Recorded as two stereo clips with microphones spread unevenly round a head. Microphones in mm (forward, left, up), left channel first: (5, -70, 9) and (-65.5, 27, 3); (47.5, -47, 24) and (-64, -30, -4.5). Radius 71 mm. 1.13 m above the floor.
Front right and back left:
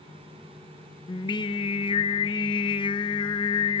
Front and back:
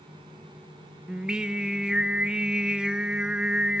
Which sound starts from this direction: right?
Singing, at 1.1 s.